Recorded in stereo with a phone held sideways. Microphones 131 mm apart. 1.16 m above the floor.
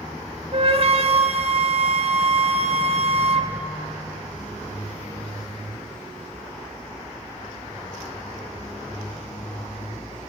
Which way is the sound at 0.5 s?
50° right (ahead or behind).